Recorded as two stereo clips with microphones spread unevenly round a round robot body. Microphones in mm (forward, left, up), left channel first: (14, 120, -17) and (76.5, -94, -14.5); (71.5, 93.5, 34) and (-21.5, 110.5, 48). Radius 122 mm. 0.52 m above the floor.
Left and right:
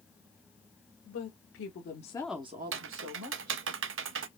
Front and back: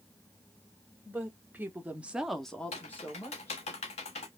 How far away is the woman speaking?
About 1.8 m.